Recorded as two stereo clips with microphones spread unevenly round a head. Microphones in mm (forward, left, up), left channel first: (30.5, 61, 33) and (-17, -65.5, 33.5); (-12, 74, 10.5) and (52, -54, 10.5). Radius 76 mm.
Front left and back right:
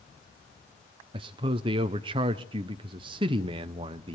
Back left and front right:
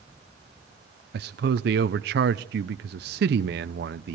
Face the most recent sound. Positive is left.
turn(degrees=-55)